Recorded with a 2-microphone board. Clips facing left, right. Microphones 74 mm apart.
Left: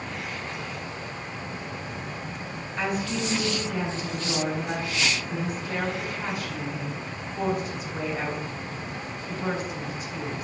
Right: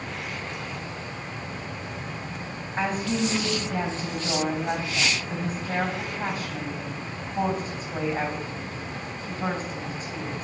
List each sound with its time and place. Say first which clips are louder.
2.8 s a woman speaking: right 2 dB; 40° right (ahead or behind), 4 m